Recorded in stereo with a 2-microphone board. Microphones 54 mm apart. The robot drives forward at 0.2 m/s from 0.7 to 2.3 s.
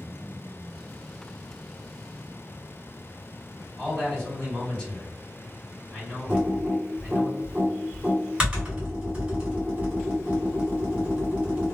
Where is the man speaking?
15° left (ahead or behind), 1.8 m.